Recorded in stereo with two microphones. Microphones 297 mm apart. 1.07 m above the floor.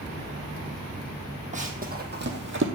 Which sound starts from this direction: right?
Running footsteps, at 1.5 s.